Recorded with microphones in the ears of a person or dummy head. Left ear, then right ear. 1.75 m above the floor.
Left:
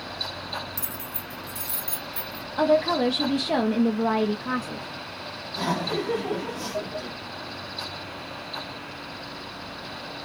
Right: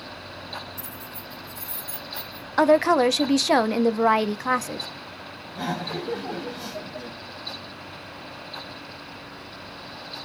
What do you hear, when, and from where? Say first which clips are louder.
0.8 s keys jangling: left 2 dB; 30° left (ahead or behind), 2.5 m; by 2.5 s 5° left (ahead or behind), 2 m
2.6 s a woman speaking: right 4 dB; 60° right (ahead or behind), 0.6 m
5.5 s laughter: left 3 dB; 5° left (ahead or behind), 2.5 m